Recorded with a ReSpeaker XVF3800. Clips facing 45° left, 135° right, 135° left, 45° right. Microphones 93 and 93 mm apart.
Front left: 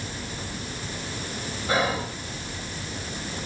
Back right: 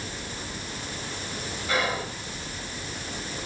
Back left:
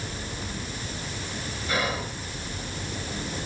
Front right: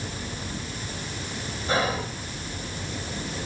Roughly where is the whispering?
Ahead.